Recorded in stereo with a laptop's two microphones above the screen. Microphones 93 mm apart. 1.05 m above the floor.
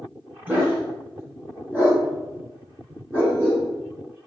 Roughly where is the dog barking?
Centre.